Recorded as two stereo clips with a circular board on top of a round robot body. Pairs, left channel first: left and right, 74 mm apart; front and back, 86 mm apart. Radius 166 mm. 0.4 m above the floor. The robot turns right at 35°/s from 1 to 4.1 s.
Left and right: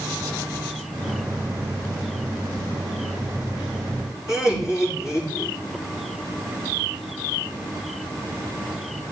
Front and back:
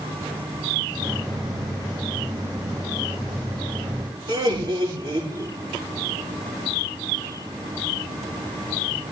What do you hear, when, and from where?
4.3 s laughter: 140° left, 6.5 m